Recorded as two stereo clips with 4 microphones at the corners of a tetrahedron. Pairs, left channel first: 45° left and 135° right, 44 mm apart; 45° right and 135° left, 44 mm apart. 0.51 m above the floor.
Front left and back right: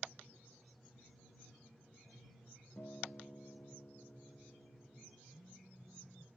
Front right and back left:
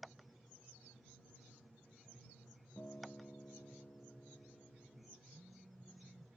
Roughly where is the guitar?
Ahead.